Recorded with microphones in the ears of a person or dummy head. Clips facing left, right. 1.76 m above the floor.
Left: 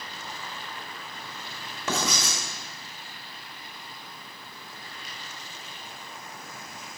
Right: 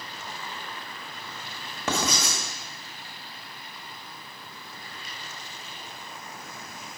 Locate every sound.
1.9 s writing: 45° right (ahead or behind), 1.9 m